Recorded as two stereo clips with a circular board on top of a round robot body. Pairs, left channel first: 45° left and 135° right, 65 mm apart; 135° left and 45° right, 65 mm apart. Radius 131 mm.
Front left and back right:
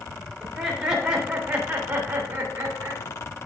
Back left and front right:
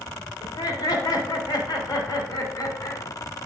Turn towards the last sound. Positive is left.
turn(degrees=170)